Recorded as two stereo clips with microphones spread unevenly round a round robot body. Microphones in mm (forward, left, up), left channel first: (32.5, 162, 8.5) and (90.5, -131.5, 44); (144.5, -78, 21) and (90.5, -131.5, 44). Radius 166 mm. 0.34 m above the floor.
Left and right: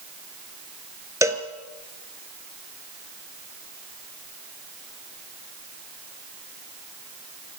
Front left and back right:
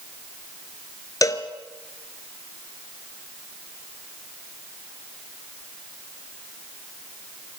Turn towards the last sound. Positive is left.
turn(degrees=0)